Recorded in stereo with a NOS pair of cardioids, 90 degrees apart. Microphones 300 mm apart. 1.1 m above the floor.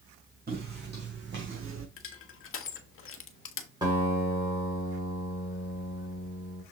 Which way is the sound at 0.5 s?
30° right.